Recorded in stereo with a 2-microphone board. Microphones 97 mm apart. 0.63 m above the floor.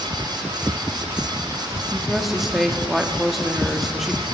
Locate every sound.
1.9 s a woman speaking: centre (ahead or behind), 1.0 m